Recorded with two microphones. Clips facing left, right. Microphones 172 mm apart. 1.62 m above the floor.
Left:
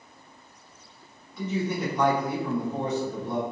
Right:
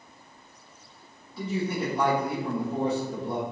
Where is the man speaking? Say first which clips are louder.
Left 1 dB; 30° right (ahead or behind), 1.4 m.